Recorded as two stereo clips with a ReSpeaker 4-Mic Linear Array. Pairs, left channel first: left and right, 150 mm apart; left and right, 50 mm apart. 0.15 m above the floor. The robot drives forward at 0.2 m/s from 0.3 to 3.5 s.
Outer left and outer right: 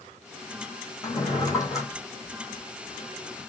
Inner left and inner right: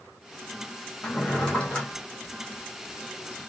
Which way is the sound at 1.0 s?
25° left (ahead or behind).